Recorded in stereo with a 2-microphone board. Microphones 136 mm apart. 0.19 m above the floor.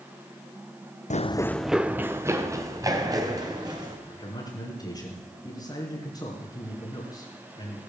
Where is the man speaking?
30° left (ahead or behind), 3 m.